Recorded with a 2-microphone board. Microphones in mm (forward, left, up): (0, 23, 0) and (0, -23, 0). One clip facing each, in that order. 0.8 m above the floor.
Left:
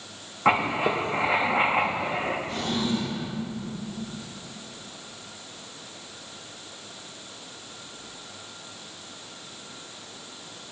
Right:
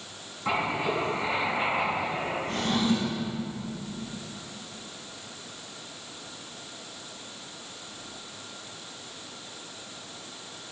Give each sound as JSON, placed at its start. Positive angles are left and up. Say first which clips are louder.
{"t": 0.5, "sound": "writing", "louder": "left 5 dB", "side_deg": 50, "distance_m": 1.0}
{"t": 2.5, "sound": "a drawer", "louder": "right 1 dB", "side_deg": -60, "distance_m": 3.5}